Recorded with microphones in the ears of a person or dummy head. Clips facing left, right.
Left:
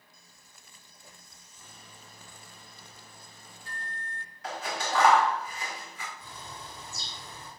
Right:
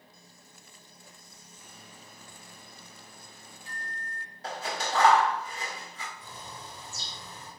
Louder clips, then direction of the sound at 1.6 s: Right 1 dB; 15° right (ahead or behind).